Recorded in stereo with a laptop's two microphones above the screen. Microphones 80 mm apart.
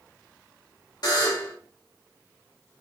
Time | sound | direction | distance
1.0 | a buzzer | 55° left (ahead or behind) | 0.9 m